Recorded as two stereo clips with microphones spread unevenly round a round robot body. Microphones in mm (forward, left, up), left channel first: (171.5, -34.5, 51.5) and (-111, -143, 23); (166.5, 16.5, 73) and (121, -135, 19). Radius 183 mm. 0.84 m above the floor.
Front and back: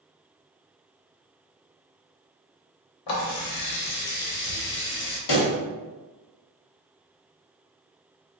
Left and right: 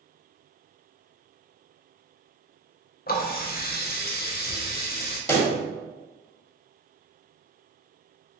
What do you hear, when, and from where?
3.1 s a running tap: 40° left, 0.9 m
5.3 s a pop: straight ahead, 1.5 m